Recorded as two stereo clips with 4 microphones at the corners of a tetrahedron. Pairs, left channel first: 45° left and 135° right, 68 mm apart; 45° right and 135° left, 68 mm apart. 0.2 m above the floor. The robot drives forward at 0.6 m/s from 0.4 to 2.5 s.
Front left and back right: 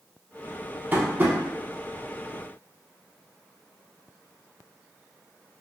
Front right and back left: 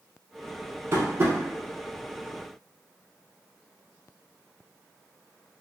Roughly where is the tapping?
Behind.